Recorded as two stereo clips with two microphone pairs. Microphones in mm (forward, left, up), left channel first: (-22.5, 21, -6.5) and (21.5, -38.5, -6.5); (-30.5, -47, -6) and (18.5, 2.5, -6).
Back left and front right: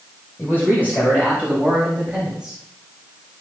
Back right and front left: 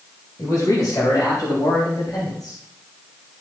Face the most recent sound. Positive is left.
turn(degrees=-140)